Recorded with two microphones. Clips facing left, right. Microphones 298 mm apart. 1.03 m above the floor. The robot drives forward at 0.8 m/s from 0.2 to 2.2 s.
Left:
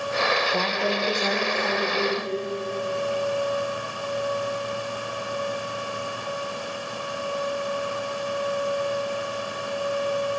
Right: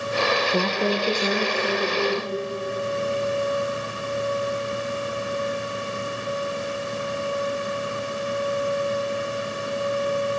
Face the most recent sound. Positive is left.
turn(degrees=-15)  # may be behind; listen again after turning